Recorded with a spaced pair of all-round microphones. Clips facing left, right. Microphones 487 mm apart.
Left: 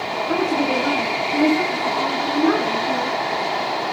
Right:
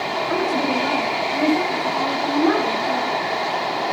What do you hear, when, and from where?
0.3 s a woman speaking: 60° left (ahead or behind), 1.6 m; by 3.2 s 35° left (ahead or behind), 4.5 m